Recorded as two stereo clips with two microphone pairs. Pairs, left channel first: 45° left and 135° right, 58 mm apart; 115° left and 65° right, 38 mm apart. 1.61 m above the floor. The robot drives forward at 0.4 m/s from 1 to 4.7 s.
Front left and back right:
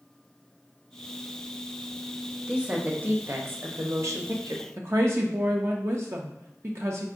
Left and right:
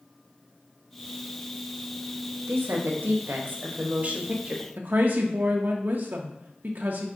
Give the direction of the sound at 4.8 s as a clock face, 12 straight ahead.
3 o'clock.